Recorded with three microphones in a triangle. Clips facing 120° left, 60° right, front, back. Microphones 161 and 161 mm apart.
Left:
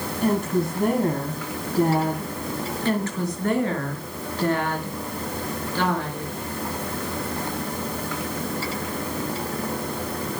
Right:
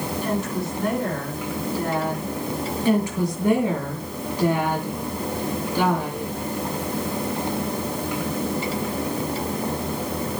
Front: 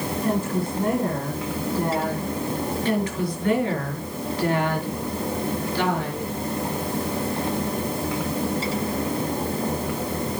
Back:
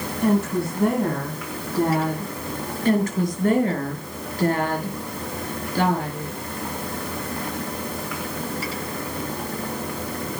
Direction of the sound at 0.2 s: 160° left.